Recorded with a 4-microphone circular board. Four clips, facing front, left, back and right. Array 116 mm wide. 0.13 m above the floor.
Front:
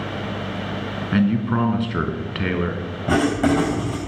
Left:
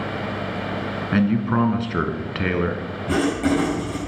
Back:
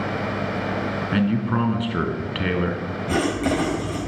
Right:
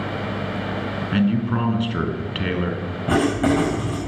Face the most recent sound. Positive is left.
turn(degrees=-30)